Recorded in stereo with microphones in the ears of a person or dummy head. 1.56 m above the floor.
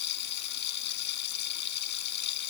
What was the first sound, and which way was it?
Running water, 55° left (ahead or behind).